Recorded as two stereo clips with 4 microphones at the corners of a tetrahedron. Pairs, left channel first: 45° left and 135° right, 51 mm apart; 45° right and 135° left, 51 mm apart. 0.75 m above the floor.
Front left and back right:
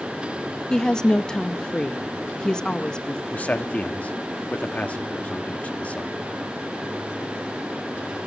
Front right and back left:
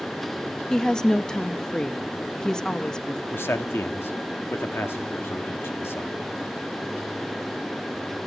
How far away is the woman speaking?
About 0.6 m.